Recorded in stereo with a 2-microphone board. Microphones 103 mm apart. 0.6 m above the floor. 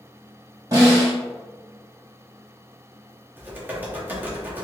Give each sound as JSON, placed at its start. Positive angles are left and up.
{"t": 0.7, "sound": "a snare drum", "side_deg": -35, "distance_m": 1.7}
{"t": 3.4, "sound": "typing on a keyboard", "side_deg": -15, "distance_m": 0.8}